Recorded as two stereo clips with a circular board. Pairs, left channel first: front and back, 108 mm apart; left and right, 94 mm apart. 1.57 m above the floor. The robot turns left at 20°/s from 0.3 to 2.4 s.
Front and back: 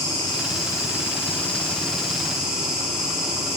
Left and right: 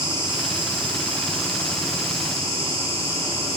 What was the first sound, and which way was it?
An insect, 55° right.